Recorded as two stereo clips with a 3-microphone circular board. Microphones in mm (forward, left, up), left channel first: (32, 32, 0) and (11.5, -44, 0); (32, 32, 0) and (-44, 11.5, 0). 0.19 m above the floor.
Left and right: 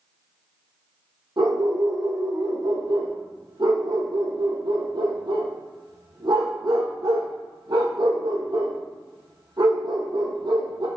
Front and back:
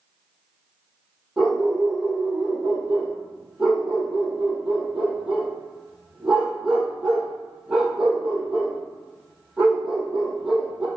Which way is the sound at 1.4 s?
85° right.